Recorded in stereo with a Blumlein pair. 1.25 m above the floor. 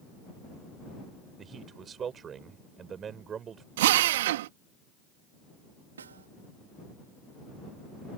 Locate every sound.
1.4 s a man speaking: 25° right
3.8 s a drill: 55° right
6.0 s a snare drum: 70° right